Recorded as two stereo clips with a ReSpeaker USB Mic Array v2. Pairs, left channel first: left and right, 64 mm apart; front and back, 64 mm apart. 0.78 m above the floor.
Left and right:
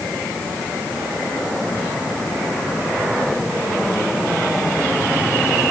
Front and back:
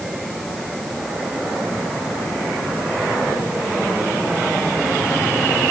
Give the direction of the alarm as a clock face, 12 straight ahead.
I don't hear an alarm.